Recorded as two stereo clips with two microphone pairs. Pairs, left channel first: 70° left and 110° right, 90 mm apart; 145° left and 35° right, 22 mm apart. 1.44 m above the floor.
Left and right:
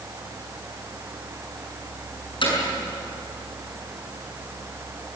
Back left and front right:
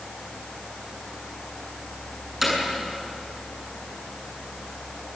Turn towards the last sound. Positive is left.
turn(degrees=45)